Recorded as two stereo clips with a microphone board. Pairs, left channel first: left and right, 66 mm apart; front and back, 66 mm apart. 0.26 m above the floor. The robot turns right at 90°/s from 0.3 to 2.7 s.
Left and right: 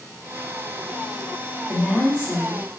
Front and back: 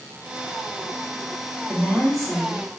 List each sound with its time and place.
1.7 s a woman speaking: 105° right, 1.3 m; by 2.6 s 20° right, 1.3 m